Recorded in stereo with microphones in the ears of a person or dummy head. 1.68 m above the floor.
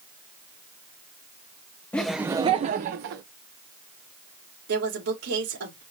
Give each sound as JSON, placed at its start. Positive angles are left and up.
{"t": 1.9, "sound": "laughter", "side_deg": 10, "distance_m": 0.7}
{"t": 4.7, "sound": "a woman speaking", "side_deg": -80, "distance_m": 3.0}